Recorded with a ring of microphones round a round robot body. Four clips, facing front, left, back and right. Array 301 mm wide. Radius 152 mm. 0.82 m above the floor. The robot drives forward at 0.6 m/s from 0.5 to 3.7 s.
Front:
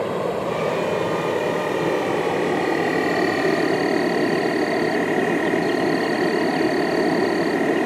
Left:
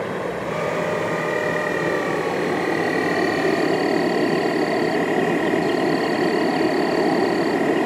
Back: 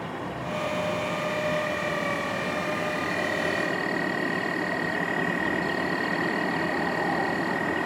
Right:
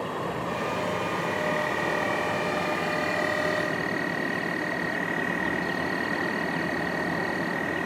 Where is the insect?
25° left; by 7.9 s 50° left.